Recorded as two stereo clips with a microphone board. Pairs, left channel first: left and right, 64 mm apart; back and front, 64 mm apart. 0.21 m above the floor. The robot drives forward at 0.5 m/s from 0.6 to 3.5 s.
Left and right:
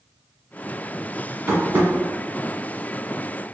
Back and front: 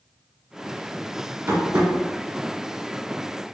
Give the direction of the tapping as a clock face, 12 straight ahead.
1 o'clock.